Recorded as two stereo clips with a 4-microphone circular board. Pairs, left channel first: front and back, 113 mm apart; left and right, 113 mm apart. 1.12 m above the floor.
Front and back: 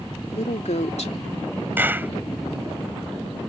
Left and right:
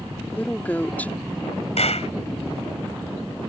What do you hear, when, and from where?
0.3 s a woman speaking: 15° left
1.8 s a clap: 110° left